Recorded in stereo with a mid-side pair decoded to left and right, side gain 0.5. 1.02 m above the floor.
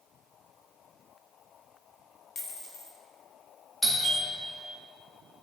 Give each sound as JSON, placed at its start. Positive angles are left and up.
{"t": 2.4, "sound": "a dropped coin", "azimuth_deg": 45, "distance_m": 1.1}
{"t": 3.8, "sound": "a doorbell", "azimuth_deg": 0, "distance_m": 2.0}